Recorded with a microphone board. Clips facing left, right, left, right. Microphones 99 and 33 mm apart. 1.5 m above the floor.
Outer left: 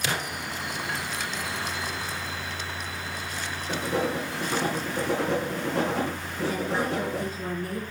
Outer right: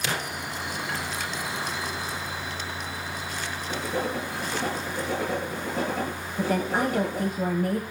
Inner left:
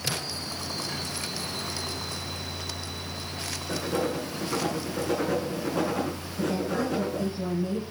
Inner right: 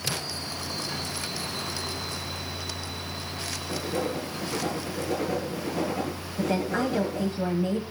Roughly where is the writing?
Left.